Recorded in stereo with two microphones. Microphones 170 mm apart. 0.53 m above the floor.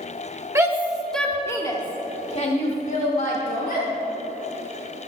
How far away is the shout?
About 1.4 m.